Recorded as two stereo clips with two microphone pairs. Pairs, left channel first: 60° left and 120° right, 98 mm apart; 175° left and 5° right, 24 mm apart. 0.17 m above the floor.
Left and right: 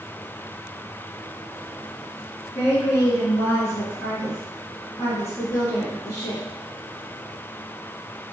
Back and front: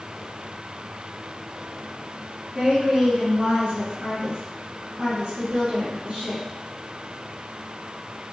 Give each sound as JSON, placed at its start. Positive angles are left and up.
{"t": 2.5, "sound": "a woman speaking", "azimuth_deg": 25, "distance_m": 2.0}